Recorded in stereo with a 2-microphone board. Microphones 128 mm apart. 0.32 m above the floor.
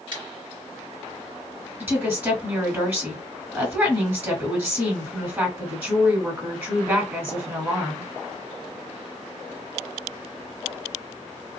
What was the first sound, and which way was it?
Scissors, 40° right (ahead or behind).